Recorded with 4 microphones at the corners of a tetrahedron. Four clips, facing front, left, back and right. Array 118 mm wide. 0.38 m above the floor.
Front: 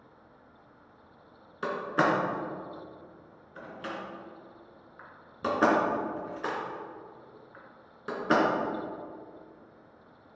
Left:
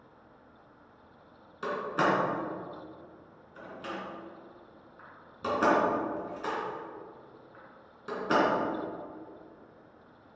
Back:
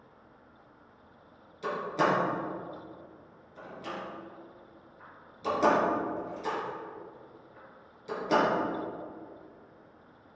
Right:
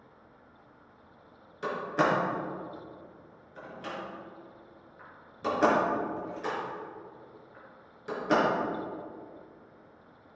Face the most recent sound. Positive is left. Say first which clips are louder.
# right 1 dB, front 1 dB
turn(degrees=10)